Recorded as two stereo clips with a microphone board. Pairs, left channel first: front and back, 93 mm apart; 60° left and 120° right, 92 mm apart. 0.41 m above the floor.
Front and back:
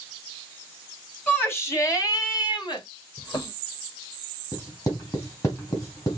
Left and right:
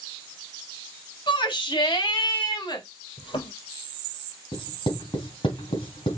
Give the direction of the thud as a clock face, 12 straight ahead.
10 o'clock.